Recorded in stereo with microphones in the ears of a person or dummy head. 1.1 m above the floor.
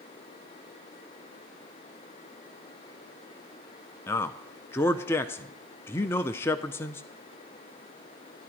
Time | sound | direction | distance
4.1 | a man speaking | 15° left (ahead or behind) | 0.5 m